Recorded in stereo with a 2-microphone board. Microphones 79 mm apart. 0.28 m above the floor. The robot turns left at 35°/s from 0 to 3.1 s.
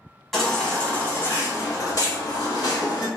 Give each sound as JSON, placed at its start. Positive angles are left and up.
{"t": 0.3, "sound": "a baby crying", "azimuth_deg": 180, "distance_m": 0.9}